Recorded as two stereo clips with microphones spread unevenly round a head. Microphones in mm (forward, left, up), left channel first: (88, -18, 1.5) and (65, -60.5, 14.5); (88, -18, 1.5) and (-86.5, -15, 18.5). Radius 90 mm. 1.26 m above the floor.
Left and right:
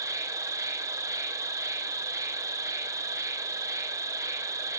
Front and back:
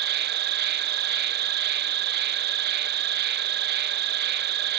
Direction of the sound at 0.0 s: 155° right.